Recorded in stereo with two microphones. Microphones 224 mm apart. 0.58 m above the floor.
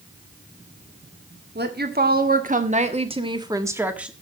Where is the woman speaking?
50° right (ahead or behind), 1.8 m; by 4.1 s 5° right (ahead or behind), 1.5 m.